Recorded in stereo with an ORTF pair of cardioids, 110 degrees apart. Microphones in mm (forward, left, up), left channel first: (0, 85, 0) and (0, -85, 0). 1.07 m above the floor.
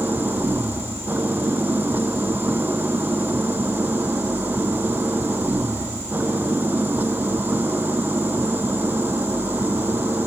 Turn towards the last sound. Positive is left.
turn(degrees=-10)